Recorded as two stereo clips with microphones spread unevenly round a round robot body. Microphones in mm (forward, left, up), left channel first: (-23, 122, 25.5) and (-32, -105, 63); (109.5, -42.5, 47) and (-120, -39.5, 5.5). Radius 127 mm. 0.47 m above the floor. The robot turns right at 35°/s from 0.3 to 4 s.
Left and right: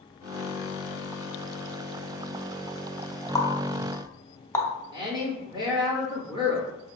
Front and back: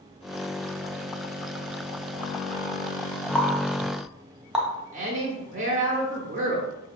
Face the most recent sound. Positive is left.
turn(degrees=-165)